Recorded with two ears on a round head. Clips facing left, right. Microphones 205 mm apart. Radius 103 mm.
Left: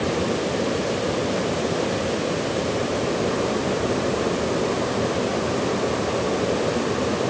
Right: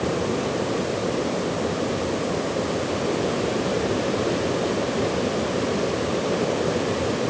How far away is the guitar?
No guitar in this recording.